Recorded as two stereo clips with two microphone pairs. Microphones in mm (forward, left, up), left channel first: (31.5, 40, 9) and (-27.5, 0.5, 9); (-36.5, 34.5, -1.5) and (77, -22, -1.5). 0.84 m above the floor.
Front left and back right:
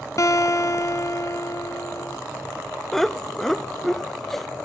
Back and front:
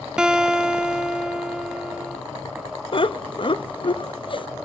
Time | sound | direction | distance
0.2 | a guitar | 55° left | 1.1 m
2.9 | laughter | 120° left | 0.7 m